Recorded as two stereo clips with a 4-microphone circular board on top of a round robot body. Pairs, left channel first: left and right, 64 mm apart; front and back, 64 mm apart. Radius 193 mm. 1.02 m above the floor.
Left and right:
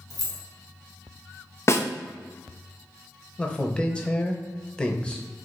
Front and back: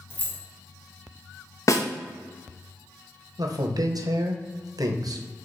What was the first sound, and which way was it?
Keys jangling, 60° left.